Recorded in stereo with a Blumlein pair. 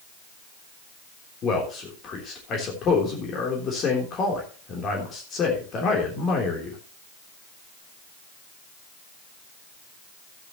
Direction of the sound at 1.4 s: 30° left.